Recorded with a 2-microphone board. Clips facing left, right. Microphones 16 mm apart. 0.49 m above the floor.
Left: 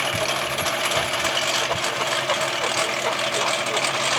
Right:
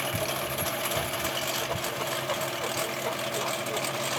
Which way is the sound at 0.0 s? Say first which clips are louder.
Left 7 dB; 35° left (ahead or behind).